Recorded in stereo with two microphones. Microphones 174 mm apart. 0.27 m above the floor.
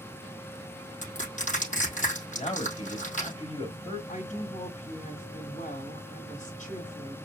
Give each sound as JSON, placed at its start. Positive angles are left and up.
{"t": 1.0, "sound": "crushing", "side_deg": 50, "distance_m": 3.5}
{"t": 2.3, "sound": "a man speaking", "side_deg": 40, "distance_m": 1.4}
{"t": 4.1, "sound": "a woman speaking", "side_deg": 50, "distance_m": 1.9}